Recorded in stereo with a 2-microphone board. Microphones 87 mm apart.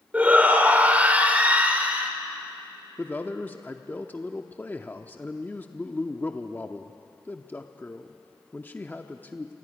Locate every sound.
0.1 s a shout: 20° right (ahead or behind), 2 m
3.0 s a man speaking: 20° left (ahead or behind), 0.7 m